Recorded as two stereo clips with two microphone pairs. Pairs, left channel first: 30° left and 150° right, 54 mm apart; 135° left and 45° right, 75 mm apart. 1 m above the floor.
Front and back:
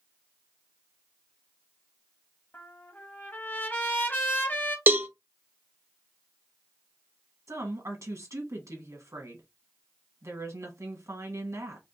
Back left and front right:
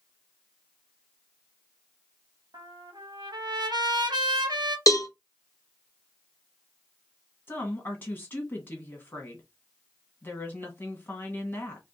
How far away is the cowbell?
About 0.7 m.